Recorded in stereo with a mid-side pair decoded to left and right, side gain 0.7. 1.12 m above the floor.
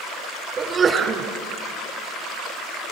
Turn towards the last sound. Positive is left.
turn(degrees=-30)